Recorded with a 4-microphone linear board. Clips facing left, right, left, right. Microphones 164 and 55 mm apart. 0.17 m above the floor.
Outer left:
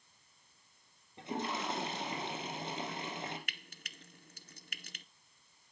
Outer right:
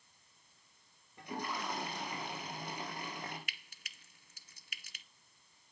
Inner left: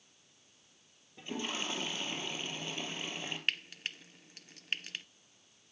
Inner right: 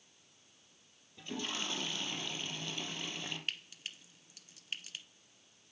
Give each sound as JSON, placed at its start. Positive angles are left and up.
{"t": 1.2, "sound": "a toilet flushing", "side_deg": 25, "distance_m": 4.0}
{"t": 3.5, "sound": "frying", "side_deg": 60, "distance_m": 0.6}